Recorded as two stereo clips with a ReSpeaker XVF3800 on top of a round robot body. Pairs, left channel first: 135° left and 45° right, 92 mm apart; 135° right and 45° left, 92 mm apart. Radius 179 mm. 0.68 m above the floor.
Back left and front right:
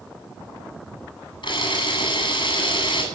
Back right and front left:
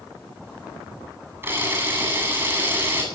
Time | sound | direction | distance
1.4 | a camera shutter | 110° left | 8.5 m